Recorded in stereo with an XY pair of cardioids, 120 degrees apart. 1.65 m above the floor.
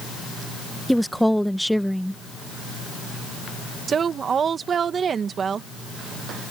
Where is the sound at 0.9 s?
Straight ahead.